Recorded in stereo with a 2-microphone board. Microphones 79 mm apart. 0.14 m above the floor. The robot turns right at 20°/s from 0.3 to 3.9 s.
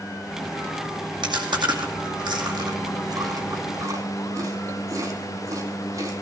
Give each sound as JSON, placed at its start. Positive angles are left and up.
{"t": 1.2, "sound": "chewing", "side_deg": -80, "distance_m": 2.0}